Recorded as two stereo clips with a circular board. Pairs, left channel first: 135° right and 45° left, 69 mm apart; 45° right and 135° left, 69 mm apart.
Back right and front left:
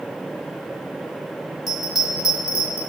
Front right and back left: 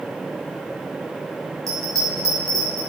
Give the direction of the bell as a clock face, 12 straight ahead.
7 o'clock.